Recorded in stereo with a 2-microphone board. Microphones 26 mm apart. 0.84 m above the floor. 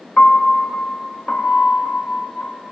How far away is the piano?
About 1.1 m.